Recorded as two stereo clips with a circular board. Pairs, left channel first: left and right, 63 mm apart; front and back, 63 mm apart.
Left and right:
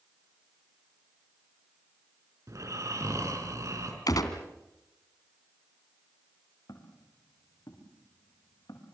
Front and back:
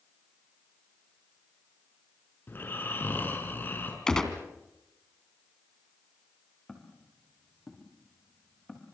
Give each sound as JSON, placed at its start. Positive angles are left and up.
{"t": 2.5, "sound": "snoring", "azimuth_deg": -60, "distance_m": 5.0}
{"t": 4.1, "sound": "a gunshot", "azimuth_deg": 75, "distance_m": 2.5}
{"t": 6.7, "sound": "footsteps", "azimuth_deg": 80, "distance_m": 7.0}